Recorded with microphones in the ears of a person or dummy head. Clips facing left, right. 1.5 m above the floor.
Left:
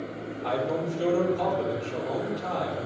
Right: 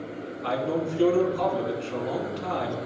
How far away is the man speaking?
About 3.5 m.